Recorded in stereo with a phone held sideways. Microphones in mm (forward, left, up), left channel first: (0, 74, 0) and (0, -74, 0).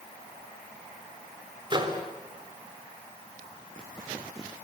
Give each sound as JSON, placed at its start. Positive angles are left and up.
{"t": 1.7, "sound": "a microwave", "side_deg": -30, "distance_m": 3.0}